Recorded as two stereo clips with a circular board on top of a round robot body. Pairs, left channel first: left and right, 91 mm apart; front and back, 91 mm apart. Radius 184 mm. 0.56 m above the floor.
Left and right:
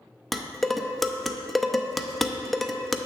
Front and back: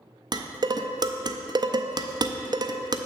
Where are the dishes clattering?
Straight behind, 0.6 m.